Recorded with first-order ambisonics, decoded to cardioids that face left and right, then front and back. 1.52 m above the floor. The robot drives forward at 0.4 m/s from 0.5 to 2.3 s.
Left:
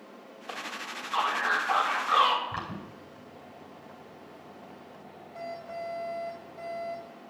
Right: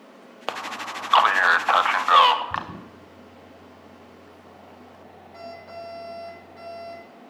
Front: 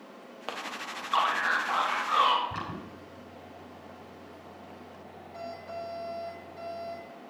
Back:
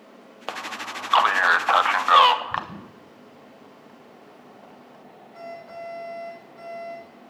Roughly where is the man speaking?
Right.